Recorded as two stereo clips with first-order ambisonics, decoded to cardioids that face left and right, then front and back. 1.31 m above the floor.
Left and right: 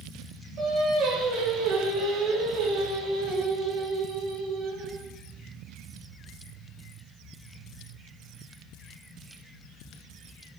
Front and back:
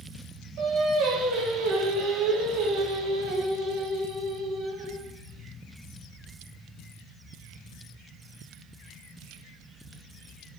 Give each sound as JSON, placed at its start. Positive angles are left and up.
{"t": 0.6, "sound": "singing", "azimuth_deg": -140, "distance_m": 3.5}